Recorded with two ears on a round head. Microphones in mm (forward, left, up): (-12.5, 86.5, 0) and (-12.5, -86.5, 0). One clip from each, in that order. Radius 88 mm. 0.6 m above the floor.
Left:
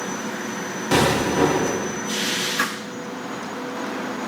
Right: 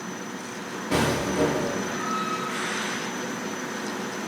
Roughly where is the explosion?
Left.